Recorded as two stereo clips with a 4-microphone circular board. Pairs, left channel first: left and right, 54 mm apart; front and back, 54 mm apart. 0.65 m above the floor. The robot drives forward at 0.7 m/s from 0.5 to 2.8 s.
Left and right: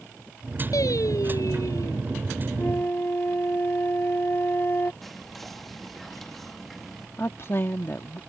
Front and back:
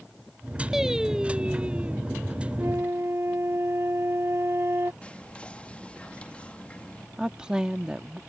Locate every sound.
0.7 s singing: 100° left; by 2.0 s 115° left
2.6 s a flute: 140° left
5.0 s whispering: 5° left
7.2 s a woman speaking: 110° left